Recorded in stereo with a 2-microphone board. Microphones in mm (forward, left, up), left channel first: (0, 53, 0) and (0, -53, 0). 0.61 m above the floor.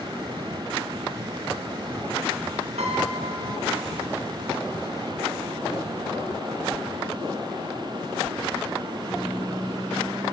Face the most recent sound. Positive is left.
turn(degrees=-80)